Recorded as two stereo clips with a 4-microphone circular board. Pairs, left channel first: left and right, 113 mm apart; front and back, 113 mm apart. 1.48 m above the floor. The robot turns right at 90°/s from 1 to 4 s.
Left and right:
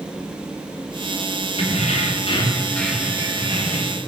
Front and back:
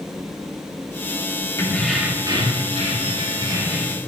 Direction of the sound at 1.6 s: 60° left.